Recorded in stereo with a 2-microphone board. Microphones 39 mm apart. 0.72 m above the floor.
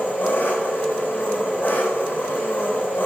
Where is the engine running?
55° left (ahead or behind), 3 m.